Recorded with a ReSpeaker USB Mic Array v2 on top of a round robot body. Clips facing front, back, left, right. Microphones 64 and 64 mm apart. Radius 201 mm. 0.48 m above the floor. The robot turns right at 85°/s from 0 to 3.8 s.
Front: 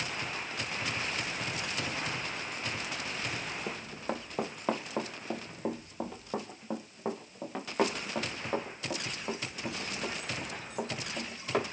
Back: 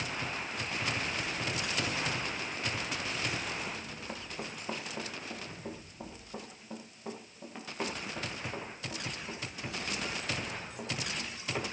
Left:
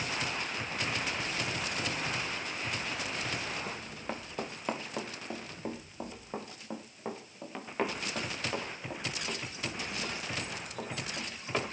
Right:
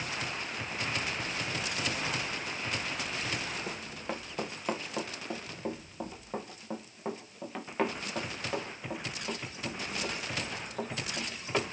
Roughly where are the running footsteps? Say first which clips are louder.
Front 4 dB, right 1 dB; ahead.